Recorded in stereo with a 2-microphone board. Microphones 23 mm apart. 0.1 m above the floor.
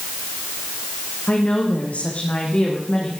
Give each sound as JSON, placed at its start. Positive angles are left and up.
{"t": 1.3, "sound": "a woman speaking", "side_deg": 75, "distance_m": 5.5}